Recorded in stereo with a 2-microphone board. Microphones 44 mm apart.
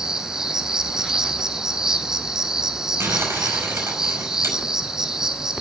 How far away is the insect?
About 1.1 m.